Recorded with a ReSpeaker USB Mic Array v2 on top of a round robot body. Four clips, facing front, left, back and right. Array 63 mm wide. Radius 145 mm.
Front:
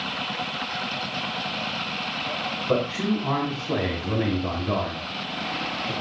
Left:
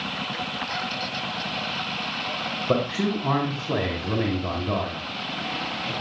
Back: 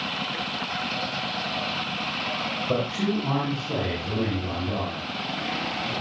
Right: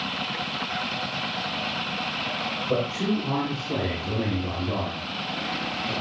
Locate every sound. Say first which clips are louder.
2.7 s a man speaking: left 2 dB, front 2 dB; 80° left, 6 m; by 5.9 s 35° left, 6.5 m